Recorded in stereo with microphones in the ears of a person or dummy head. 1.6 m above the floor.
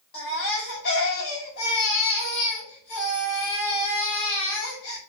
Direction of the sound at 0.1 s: 60° left (ahead or behind).